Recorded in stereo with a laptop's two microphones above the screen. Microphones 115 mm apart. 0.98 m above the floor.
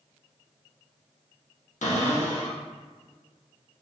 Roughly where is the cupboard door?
Left.